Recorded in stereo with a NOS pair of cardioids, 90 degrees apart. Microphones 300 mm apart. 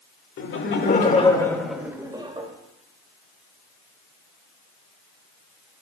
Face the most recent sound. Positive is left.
turn(degrees=-20)